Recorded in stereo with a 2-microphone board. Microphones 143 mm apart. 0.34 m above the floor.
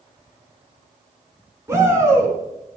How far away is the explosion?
I don't hear an explosion.